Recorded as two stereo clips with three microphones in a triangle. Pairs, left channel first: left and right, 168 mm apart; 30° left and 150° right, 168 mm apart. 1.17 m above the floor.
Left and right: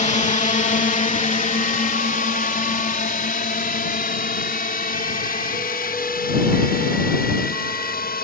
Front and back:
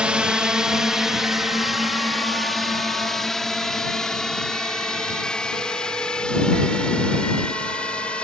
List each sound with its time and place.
0.0 s a drone: 125° left; by 8.2 s 115° left